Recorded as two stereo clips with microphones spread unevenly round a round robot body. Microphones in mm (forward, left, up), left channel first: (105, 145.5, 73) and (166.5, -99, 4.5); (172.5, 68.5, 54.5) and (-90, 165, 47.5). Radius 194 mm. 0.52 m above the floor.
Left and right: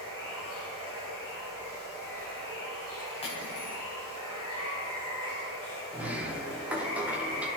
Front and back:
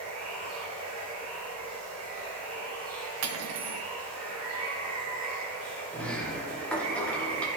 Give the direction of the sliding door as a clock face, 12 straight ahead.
3 o'clock.